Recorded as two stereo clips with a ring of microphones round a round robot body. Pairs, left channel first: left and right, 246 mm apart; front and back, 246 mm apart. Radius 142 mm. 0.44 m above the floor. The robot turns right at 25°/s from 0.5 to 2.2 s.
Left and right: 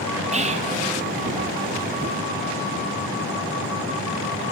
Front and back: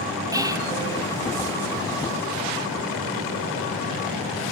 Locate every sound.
0.3 s whispering: 120° right, 1.2 m; by 0.7 s 115° right, 1.2 m